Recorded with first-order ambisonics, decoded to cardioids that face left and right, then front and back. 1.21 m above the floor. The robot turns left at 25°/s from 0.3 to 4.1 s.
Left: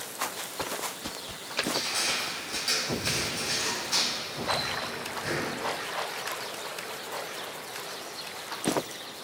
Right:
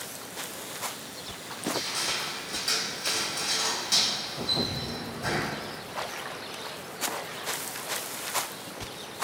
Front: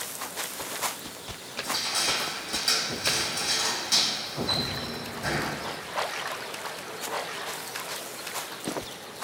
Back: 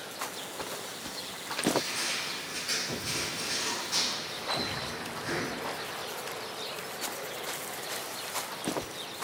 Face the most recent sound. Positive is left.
turn(degrees=-35)